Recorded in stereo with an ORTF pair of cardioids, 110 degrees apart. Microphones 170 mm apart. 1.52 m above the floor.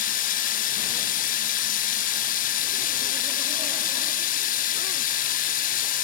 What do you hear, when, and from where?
0.0 s running water: 55° left, 1.0 m